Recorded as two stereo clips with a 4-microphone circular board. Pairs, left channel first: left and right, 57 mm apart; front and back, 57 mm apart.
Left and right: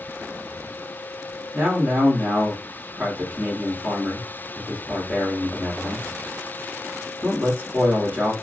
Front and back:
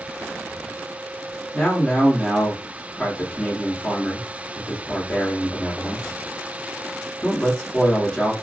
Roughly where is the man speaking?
Right.